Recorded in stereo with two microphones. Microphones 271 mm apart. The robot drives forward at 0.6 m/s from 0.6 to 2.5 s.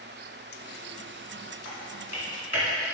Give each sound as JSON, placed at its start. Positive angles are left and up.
{"t": 1.6, "sound": "typing on a keyboard", "side_deg": 75, "distance_m": 3.0}